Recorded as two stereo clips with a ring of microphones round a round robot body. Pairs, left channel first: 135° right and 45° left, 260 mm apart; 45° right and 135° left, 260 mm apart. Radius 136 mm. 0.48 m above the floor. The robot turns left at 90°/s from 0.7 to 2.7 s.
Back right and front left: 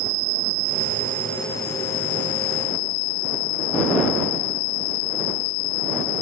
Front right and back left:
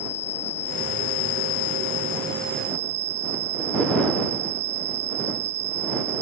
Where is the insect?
20° left; by 6.2 s 160° right.